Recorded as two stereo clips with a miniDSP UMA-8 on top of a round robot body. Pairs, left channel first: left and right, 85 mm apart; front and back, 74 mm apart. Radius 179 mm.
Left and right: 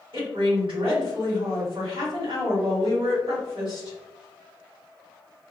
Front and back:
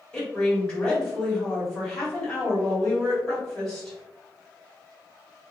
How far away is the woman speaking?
About 1.9 m.